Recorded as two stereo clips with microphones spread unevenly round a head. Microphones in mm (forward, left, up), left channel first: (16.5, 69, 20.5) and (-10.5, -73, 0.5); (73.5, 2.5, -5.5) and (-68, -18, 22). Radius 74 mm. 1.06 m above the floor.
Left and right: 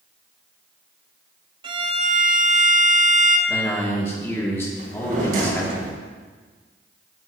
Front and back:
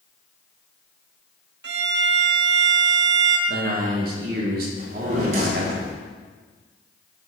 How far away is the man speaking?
About 3 m.